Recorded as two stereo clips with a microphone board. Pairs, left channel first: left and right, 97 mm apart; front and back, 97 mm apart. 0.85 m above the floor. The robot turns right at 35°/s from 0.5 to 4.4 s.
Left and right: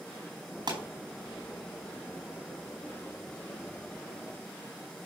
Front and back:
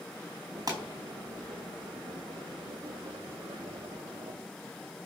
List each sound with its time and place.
0.7 s a pop: 130° right, 4.5 m; by 0.8 s 125° right, 4.5 m